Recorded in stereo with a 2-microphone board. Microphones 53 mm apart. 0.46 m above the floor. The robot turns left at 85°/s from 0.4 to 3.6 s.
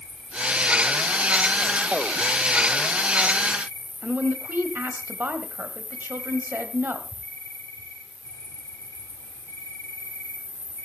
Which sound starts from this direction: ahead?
An insect, at 0.0 s.